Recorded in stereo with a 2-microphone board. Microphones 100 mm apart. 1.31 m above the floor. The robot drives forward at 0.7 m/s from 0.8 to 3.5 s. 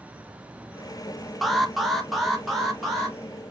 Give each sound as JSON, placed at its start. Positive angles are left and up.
{"t": 1.4, "sound": "an alarm", "side_deg": 0, "distance_m": 0.9}